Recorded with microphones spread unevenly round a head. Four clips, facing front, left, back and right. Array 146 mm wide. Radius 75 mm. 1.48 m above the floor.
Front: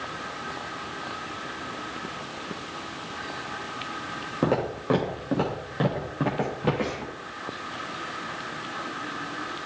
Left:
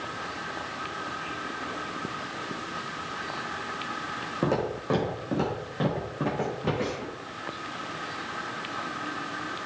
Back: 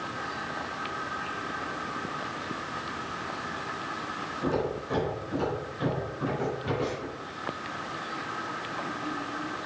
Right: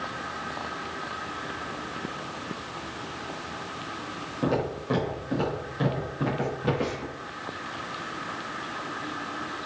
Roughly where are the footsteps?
Ahead left.